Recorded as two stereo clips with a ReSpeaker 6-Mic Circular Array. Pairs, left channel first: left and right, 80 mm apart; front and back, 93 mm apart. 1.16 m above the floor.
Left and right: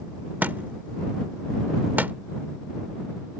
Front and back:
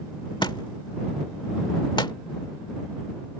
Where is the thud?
25° right.